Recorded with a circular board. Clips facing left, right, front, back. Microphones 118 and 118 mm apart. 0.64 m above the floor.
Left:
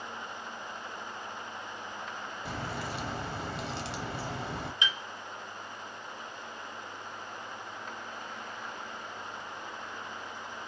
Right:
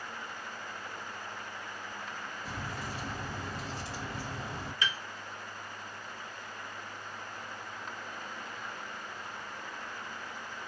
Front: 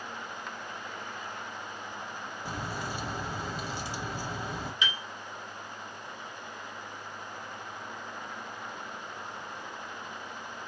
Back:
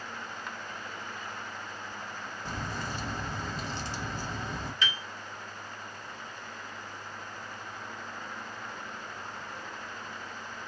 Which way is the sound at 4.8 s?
50° left.